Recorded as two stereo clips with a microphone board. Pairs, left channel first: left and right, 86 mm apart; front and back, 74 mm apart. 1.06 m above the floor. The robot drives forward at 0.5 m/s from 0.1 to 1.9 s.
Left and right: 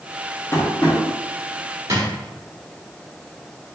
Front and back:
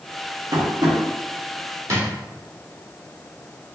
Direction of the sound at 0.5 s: 155° left.